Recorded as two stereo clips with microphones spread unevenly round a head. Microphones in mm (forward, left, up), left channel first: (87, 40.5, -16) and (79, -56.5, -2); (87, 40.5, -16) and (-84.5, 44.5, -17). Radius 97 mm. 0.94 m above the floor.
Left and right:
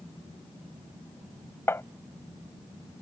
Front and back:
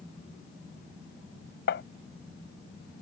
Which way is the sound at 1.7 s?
20° left.